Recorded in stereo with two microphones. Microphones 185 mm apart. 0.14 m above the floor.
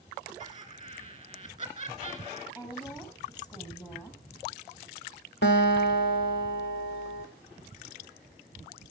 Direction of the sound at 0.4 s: 25° right (ahead or behind).